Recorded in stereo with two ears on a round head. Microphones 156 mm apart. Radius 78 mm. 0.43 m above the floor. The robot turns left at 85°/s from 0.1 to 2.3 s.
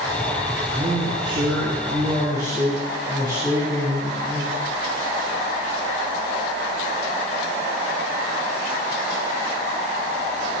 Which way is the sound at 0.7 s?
20° right.